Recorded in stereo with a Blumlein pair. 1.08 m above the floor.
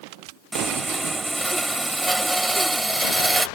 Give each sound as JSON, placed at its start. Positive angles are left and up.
{"t": 0.5, "sound": "sawing", "azimuth_deg": -5}